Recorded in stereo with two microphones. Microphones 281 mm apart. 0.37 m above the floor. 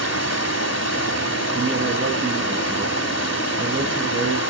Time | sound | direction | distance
0.0 | running water | 70° left (ahead or behind) | 0.9 m
1.5 | a woman speaking | 50° right (ahead or behind) | 5.5 m